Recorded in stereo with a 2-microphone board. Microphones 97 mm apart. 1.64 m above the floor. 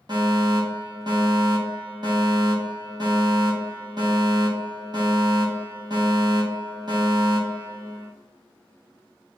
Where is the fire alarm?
50° right (ahead or behind), 4.5 m.